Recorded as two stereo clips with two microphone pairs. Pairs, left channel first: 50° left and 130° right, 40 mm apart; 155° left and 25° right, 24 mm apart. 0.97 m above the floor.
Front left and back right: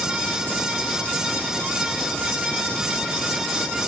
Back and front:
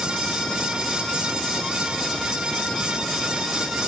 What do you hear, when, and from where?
Only background noise.